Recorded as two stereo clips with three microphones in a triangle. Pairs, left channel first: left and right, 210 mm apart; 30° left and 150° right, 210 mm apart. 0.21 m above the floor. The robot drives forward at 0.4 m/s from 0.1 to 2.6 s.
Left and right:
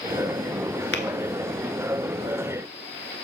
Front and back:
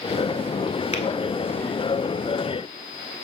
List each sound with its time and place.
0.9 s tapping: 85° left, 0.8 m; by 1.0 s 90° left, 0.8 m